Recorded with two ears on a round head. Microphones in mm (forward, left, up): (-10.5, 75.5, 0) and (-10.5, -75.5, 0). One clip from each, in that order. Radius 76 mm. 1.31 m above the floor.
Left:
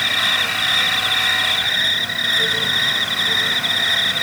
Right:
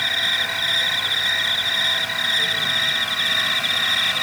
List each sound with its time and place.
0.0 s an insect: 5° right (ahead or behind)